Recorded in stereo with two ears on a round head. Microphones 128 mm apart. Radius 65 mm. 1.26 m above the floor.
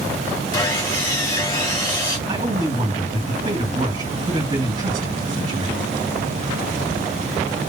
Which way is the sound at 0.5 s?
20° left (ahead or behind).